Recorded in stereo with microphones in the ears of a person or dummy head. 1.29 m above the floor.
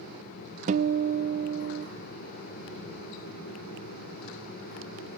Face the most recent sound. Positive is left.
turn(degrees=-35)  # may be behind; listen again after turning